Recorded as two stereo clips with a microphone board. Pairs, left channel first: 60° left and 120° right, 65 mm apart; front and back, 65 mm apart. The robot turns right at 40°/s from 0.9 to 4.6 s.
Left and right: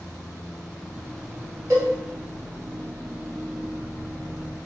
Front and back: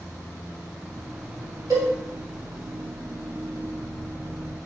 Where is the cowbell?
165° right, 1.4 m; by 1.9 s 155° right, 1.4 m.